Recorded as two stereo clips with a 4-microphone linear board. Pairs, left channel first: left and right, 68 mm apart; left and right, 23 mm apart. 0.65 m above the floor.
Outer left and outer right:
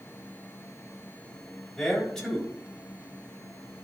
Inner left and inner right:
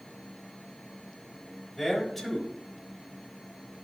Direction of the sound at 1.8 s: 5° left (ahead or behind).